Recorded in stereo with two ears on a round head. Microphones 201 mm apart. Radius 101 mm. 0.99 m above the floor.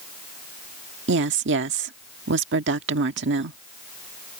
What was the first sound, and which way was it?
A woman speaking, 60° right (ahead or behind).